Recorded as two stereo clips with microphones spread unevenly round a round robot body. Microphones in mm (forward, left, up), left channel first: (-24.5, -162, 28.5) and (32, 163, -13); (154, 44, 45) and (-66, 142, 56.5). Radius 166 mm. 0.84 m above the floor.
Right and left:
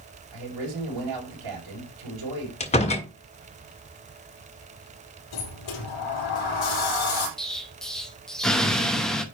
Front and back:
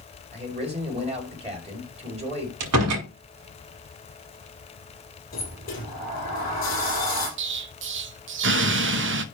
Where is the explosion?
165° left, 0.9 m.